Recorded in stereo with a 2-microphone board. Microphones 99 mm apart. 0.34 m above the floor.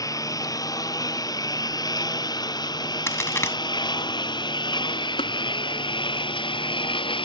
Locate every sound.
0.0 s a lawn mower: 35° left (ahead or behind); by 7.2 s 55° left (ahead or behind)
3.1 s a crack: 25° left (ahead or behind)
5.2 s tapping: 75° left (ahead or behind)